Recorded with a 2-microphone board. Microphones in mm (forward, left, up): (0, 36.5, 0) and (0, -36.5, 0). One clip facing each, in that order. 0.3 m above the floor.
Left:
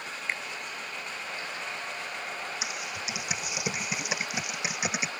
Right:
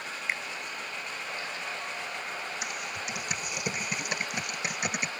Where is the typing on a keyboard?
5° left (ahead or behind).